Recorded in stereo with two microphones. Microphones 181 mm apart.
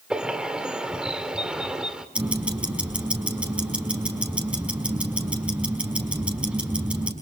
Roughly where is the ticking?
Centre.